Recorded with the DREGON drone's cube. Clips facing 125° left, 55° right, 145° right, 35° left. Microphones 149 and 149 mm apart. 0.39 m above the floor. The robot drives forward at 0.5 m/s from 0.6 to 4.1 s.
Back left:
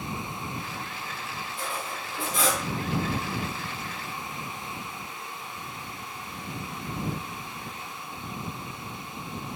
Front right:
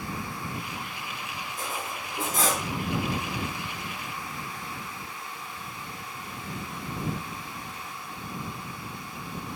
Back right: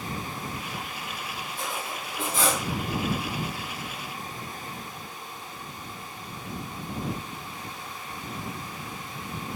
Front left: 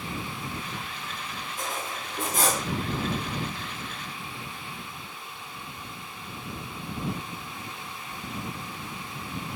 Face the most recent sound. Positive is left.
turn(degrees=-20)